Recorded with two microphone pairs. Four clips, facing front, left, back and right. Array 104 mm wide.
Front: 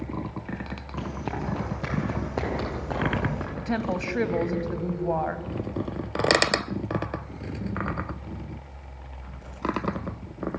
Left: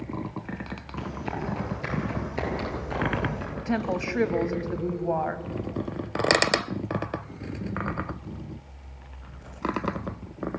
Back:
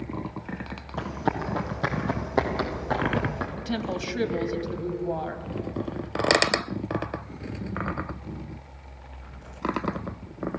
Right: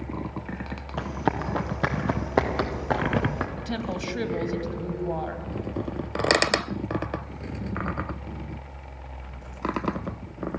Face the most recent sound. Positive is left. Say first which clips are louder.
# left 3 dB, front 4 dB
turn(degrees=40)